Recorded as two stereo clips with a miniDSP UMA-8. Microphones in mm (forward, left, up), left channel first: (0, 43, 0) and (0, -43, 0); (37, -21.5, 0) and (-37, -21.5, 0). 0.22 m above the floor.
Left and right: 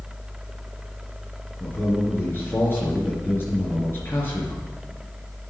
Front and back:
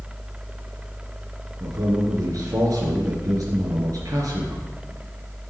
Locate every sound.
1.6 s a man speaking: 150° left, 3.5 m